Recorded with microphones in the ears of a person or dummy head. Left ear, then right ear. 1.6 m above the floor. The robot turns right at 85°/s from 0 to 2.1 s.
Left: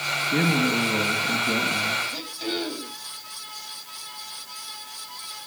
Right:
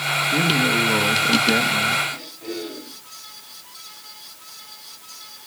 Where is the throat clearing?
75° left (ahead or behind), 6 m.